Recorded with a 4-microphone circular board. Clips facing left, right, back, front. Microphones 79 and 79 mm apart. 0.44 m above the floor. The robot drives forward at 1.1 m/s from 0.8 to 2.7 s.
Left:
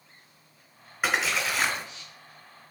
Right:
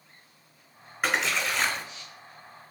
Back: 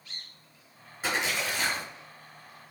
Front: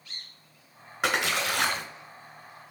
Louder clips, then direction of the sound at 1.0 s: Even, front 3 dB; straight ahead.